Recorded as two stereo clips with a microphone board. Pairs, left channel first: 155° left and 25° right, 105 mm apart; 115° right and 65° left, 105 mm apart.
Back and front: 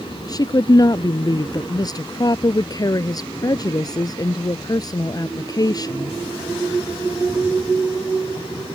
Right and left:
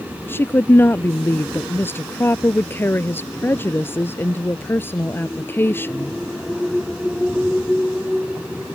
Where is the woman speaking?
175° right.